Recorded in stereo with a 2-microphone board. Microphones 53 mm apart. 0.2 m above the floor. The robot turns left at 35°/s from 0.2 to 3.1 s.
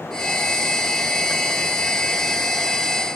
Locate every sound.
Only background noise.